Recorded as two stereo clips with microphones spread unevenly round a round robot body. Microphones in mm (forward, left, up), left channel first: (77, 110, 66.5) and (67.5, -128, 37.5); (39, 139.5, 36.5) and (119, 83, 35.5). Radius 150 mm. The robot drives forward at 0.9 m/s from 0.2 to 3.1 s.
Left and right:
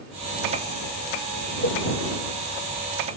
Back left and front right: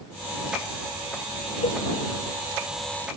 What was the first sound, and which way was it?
A cowbell, 150° left.